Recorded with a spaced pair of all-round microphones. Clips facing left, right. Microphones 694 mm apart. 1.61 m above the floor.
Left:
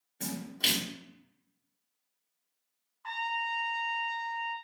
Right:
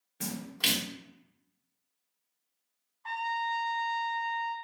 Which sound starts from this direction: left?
A trumpet, at 3.0 s.